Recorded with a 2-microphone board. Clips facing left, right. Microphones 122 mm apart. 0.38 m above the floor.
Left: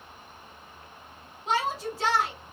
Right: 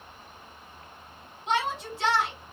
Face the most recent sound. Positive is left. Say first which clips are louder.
# even
turn(degrees=35)  # may be behind; listen again after turning